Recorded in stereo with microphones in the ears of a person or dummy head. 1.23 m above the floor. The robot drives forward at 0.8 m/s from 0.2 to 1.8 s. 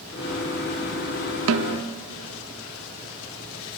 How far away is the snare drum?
About 1.6 m.